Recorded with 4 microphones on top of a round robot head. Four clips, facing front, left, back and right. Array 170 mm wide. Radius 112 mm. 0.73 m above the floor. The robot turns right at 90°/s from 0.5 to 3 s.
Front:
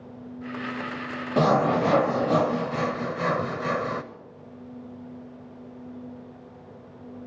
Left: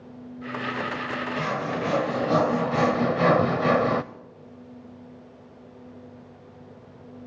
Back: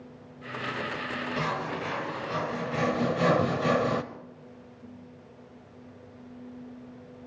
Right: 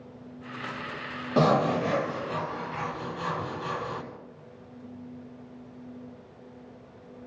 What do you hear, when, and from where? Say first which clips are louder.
1.4 s sawing: right 8 dB, front 13 dB; 45° right, 0.7 m; by 4.0 s 105° left, 0.7 m